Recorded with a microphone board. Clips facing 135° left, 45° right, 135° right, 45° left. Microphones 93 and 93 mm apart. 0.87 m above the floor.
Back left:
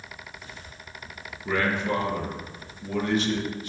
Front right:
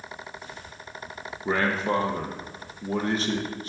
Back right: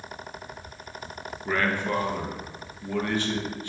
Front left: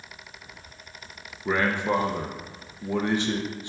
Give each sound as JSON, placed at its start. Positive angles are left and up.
{"t": 1.4, "sound": "a man speaking", "azimuth_deg": -15, "distance_m": 0.7}